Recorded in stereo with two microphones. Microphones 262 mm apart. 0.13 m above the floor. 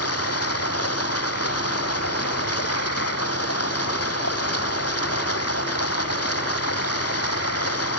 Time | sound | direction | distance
0.0 | running water | 65° left (ahead or behind) | ?